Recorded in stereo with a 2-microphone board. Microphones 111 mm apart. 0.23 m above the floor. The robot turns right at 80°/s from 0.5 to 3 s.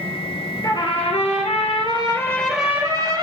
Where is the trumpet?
30° left, 2 m; by 3.2 s 140° right, 2 m.